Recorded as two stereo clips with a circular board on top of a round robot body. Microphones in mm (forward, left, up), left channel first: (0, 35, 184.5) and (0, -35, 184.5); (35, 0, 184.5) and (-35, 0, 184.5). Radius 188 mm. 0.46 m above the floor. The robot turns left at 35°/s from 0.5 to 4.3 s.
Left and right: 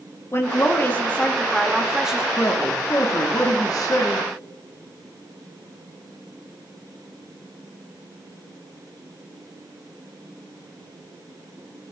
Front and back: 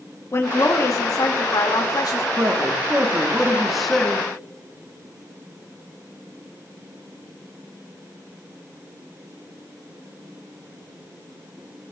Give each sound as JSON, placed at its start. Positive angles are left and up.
{"t": 0.3, "sound": "a woman speaking", "azimuth_deg": 45, "distance_m": 2.0}
{"t": 2.4, "sound": "a man speaking", "azimuth_deg": 140, "distance_m": 1.4}